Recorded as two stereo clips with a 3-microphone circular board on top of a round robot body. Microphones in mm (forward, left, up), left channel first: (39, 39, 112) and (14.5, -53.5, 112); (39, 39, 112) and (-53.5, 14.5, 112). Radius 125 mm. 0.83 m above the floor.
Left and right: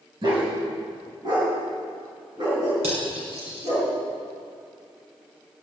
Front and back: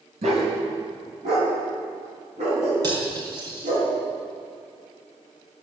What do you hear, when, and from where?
0.2 s a dog barking: 150° right, 3 m; by 3.8 s 155° right, 6 m
2.8 s cutlery clinking: 115° right, 4.5 m